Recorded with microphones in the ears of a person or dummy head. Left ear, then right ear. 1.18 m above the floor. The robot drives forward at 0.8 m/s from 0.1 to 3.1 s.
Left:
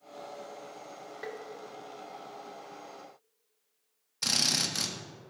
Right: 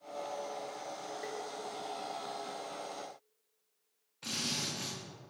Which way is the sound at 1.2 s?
15° left (ahead or behind).